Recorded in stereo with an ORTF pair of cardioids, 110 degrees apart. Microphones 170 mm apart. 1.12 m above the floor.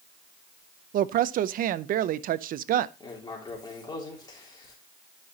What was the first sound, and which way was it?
A woman speaking, 60° right.